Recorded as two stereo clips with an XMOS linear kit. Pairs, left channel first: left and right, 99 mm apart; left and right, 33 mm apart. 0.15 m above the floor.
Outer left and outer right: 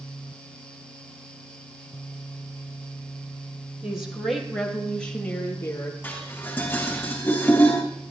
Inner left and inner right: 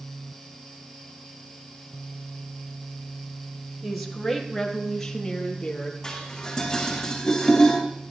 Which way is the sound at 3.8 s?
10° right (ahead or behind).